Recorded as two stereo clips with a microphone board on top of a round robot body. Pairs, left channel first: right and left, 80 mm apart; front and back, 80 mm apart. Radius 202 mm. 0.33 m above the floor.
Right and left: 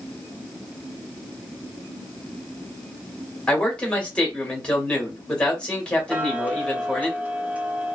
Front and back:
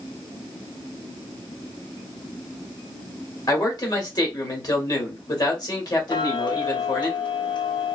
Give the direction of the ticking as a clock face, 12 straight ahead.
11 o'clock.